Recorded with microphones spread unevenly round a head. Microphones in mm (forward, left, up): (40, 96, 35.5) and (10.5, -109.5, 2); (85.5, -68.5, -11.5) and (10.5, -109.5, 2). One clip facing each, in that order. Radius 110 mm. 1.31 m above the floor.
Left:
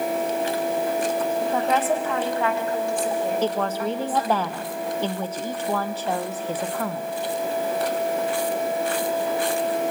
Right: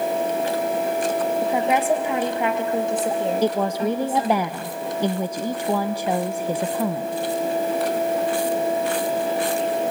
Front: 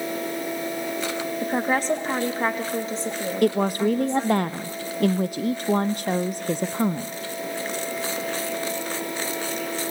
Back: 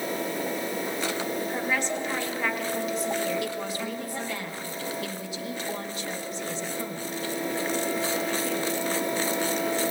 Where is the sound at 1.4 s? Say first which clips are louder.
Right 3 dB, front 9 dB; 20° right, 1.5 m; by 4.4 s 35° right, 3 m.